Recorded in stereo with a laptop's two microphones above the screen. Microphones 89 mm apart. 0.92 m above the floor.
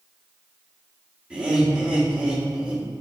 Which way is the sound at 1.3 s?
15° right (ahead or behind).